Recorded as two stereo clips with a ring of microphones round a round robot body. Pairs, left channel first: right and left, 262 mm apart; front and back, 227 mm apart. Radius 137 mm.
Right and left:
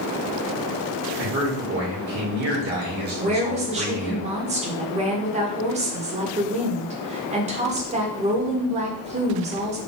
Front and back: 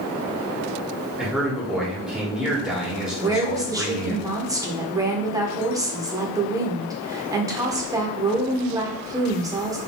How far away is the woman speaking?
About 1.0 m.